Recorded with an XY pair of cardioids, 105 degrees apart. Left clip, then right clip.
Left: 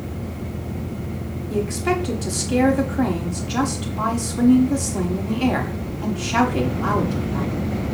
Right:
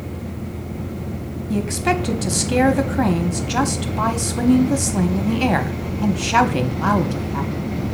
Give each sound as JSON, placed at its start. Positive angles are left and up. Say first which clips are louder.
{"t": 1.5, "sound": "a woman speaking", "louder": "right 1 dB", "azimuth_deg": -40, "distance_m": 1.0}